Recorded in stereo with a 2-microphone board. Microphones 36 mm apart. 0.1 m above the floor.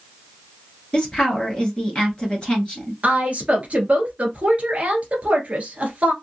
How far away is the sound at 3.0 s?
About 1.3 m.